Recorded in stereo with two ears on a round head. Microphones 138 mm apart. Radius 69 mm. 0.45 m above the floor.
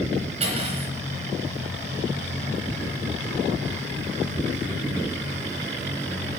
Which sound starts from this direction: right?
Cutlery clinking, at 0.4 s.